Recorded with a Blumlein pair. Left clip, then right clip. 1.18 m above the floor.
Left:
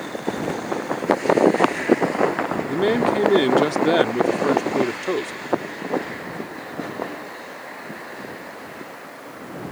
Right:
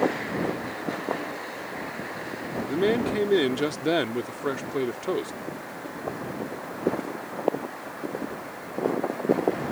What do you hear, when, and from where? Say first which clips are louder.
2.7 s a man speaking: left 3 dB; 10° left